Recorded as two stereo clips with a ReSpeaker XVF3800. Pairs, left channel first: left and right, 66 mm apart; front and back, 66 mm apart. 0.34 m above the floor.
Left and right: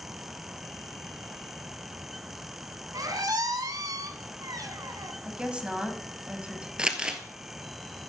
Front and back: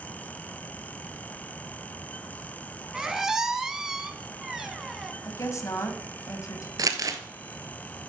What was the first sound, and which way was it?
A squeak, 100° right.